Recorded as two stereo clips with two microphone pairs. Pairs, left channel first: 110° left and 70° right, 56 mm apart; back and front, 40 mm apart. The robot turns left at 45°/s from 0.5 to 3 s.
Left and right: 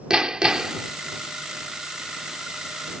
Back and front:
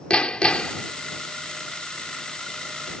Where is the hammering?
140° right; by 0.9 s 155° right.